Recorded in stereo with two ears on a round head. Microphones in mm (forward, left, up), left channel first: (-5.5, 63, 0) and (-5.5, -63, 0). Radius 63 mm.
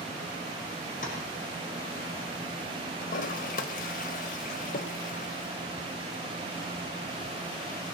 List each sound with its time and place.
1.0 s tapping: 55° left (ahead or behind), 6.5 m
3.0 s a toilet flushing: 60° left (ahead or behind), 1.6 m